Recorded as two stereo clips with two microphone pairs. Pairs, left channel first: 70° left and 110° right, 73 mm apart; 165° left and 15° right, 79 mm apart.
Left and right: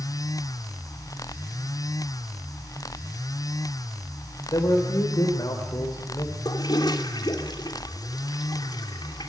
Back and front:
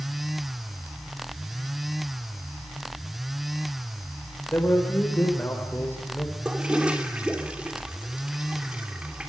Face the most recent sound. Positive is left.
turn(degrees=60)